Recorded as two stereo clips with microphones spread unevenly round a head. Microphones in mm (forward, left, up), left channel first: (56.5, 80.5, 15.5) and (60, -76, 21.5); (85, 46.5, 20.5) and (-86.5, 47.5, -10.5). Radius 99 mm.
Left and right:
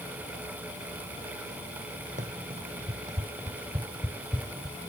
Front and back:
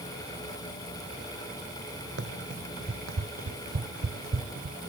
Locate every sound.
2.2 s running footsteps: 140° right; by 4.8 s straight behind